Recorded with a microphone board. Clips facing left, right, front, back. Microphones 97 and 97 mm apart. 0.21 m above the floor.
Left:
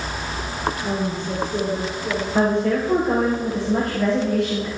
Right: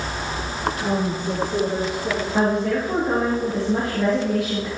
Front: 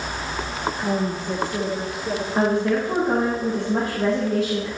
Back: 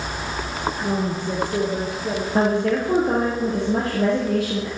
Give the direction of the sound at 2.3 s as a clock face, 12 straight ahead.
6 o'clock.